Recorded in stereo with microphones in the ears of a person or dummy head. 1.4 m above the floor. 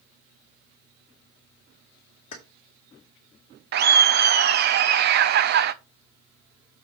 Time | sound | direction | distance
2.3 | keys jangling | 45° left (ahead or behind) | 2 m
3.7 | laughter | 50° right (ahead or behind) | 0.6 m